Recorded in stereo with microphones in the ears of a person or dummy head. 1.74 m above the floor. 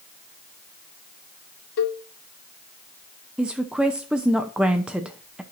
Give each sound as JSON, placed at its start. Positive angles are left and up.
{"t": 1.8, "sound": "a cowbell", "side_deg": 65, "distance_m": 0.7}
{"t": 3.4, "sound": "a woman speaking", "side_deg": -5, "distance_m": 0.7}